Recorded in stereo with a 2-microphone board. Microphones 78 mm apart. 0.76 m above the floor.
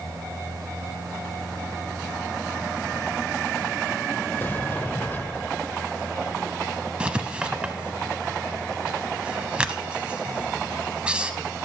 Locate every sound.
4.4 s a sliding door: 30° left (ahead or behind), 0.6 m
7.0 s writing: 15° right (ahead or behind), 0.7 m